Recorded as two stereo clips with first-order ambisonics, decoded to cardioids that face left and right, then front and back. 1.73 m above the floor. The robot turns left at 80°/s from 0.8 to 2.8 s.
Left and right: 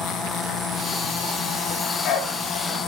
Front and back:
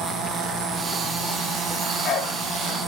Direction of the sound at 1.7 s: 70° left.